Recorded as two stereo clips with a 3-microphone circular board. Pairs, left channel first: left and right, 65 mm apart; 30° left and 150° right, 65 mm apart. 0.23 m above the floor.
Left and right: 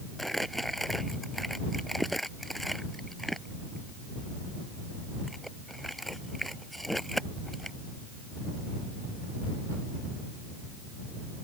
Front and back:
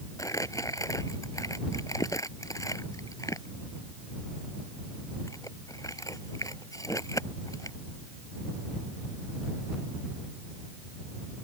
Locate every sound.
0.2 s crumpling: straight ahead